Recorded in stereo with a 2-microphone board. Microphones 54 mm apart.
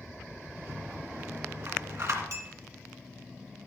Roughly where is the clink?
Right.